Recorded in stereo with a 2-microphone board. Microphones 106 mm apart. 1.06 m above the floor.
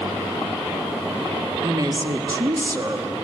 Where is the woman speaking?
35° right (ahead or behind), 1.4 m.